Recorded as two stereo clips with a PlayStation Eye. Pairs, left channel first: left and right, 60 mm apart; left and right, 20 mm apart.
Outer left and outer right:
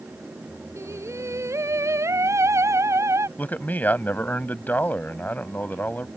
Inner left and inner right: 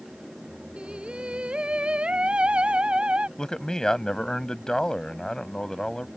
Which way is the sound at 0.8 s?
55° right (ahead or behind).